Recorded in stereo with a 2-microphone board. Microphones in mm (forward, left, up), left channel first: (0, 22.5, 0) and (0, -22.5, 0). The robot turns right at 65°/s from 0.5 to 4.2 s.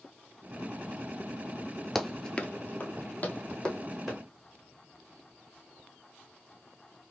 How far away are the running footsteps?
About 0.5 m.